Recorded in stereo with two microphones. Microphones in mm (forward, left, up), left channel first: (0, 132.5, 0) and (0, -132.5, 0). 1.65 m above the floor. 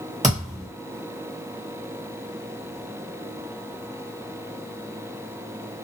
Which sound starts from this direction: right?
A thud, at 0.2 s.